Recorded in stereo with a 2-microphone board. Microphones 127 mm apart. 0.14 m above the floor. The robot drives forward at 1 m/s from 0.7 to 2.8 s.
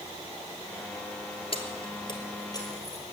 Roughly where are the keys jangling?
Left.